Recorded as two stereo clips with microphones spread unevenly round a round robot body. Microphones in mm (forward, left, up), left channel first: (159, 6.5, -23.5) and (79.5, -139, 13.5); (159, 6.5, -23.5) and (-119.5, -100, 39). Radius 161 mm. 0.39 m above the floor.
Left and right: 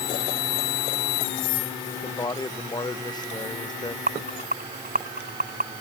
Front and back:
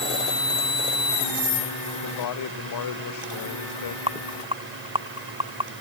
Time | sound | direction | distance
2.0 | a man speaking | 5° right | ?
4.1 | a rattle | 85° right | ?